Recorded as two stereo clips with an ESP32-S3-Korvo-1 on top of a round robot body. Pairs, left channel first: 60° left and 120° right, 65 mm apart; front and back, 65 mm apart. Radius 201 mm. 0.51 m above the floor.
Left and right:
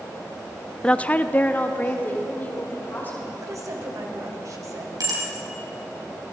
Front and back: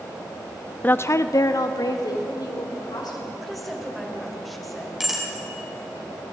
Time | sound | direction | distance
0.8 | a woman speaking | 5° left | 0.8 m
3.4 | a woman speaking | 90° right | 3.5 m
5.0 | a bicycle bell | 95° right | 4.5 m